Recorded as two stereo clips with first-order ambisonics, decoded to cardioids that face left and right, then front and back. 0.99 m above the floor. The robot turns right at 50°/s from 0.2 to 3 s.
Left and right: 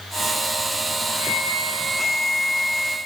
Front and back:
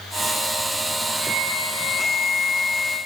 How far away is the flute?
About 3 m.